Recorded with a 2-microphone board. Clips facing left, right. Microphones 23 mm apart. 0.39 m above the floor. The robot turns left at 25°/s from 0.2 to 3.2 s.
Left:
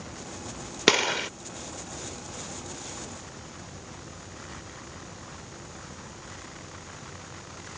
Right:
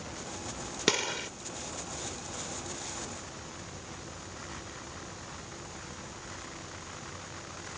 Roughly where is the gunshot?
Left.